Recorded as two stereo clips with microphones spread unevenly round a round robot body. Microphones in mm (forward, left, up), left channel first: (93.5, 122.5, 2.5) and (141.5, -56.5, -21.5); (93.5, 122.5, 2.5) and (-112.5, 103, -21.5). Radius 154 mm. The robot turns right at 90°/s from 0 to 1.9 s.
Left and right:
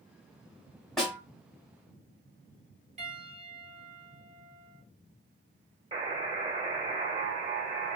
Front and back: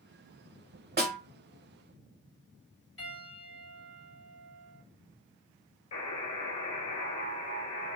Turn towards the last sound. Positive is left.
turn(degrees=-15)